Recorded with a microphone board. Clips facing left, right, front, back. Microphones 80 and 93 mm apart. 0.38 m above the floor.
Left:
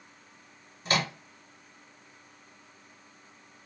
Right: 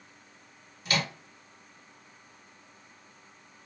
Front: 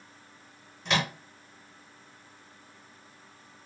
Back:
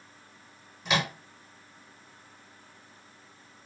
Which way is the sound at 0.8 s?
100° left.